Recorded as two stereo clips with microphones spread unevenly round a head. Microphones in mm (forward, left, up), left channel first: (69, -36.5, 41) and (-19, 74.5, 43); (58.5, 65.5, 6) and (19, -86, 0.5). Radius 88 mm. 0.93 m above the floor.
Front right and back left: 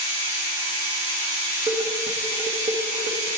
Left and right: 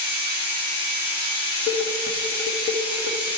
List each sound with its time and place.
0.0 s a machine running: 110° left, 3 m
1.7 s dishes clattering: 80° left, 0.8 m